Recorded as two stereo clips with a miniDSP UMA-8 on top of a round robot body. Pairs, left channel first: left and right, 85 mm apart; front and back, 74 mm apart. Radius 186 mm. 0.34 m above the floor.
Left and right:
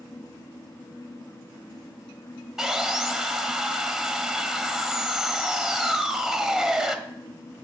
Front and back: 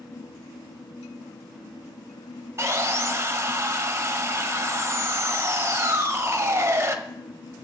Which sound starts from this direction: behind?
Sawing, at 2.6 s.